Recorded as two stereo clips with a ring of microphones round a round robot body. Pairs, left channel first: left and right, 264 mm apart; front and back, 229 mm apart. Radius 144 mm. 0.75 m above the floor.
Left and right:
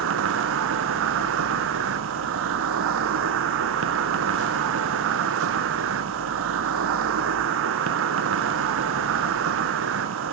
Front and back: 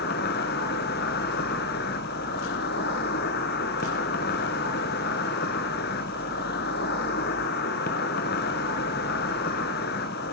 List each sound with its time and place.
0.0 s an insect: 55° right, 1.1 m